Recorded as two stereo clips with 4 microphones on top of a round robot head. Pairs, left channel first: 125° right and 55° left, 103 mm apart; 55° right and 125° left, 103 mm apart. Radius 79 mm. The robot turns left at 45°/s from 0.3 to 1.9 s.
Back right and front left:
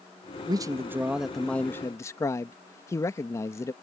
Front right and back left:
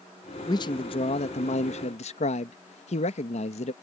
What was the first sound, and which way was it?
A man speaking, straight ahead.